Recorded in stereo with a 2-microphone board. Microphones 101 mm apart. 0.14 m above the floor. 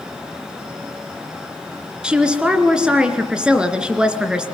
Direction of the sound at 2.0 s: 10° right (ahead or behind).